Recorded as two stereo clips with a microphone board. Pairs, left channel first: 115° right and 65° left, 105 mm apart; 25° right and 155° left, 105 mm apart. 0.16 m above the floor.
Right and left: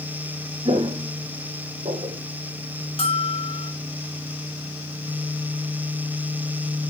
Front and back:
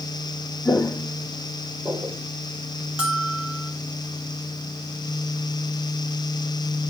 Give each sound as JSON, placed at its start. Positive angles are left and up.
{"t": 0.7, "sound": "footsteps", "azimuth_deg": 40, "distance_m": 0.6}
{"t": 3.0, "sound": "a bell", "azimuth_deg": -125, "distance_m": 0.9}